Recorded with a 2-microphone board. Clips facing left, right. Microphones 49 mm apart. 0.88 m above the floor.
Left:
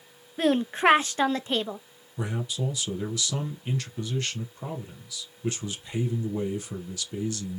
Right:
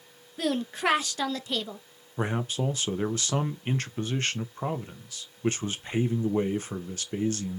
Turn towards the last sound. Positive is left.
turn(degrees=-40)  # may be behind; listen again after turning